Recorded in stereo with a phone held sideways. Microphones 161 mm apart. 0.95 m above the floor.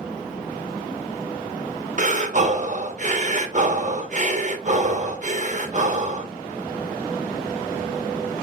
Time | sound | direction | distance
2.0 | breathing | 50° right (ahead or behind) | 0.7 m